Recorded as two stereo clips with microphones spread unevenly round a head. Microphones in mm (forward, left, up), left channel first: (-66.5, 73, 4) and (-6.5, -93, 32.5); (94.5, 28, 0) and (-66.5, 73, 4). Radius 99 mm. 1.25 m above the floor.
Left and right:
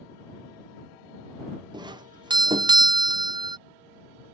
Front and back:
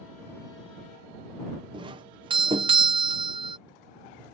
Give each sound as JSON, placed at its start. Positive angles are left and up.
{"t": 1.7, "sound": "a doorbell", "azimuth_deg": -140}